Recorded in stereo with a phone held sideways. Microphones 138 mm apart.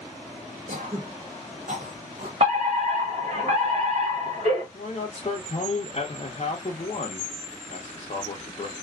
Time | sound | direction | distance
0.7 | throat clearing | 70° right (ahead or behind) | 0.8 m
2.4 | a fire alarm | 55° right (ahead or behind) | 1.9 m
4.7 | a man speaking | 45° left (ahead or behind) | 0.6 m